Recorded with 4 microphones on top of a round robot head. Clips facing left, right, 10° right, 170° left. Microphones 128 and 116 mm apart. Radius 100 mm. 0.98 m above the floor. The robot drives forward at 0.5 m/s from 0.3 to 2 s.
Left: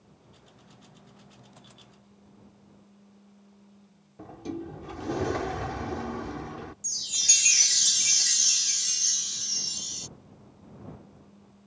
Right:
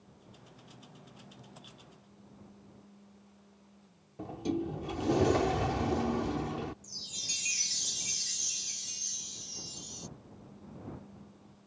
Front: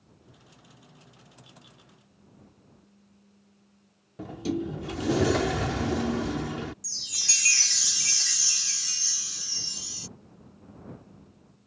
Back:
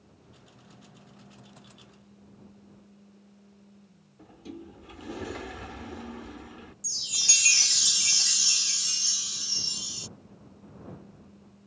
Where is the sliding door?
15° right.